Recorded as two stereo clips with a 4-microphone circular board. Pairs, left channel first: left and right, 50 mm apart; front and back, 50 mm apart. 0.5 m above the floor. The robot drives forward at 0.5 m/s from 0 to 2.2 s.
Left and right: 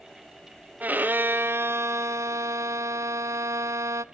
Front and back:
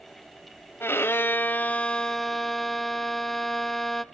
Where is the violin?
35° right, 0.9 m; by 4.0 s 85° right, 0.5 m.